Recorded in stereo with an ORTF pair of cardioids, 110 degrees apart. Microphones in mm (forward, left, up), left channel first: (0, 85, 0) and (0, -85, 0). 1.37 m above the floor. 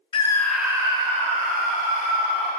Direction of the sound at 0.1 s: 30° left.